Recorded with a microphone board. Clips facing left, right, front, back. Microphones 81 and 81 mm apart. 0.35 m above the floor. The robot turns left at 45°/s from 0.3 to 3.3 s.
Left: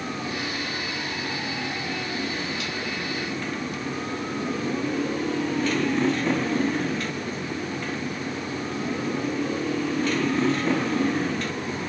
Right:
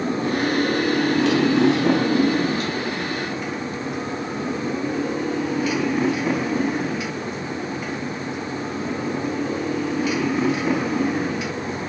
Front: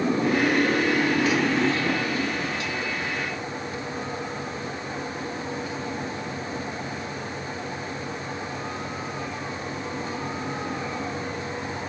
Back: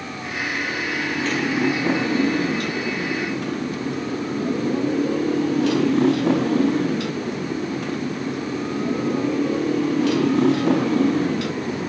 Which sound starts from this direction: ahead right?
A motorcycle, at 0.0 s.